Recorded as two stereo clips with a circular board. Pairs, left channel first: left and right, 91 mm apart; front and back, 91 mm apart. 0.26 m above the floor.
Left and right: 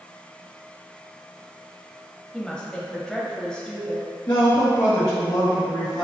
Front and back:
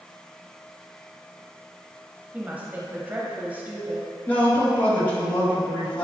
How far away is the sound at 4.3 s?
About 1.9 m.